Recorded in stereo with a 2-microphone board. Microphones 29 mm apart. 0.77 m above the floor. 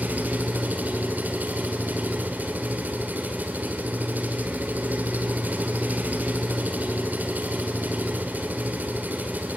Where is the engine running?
80° right, 2 m.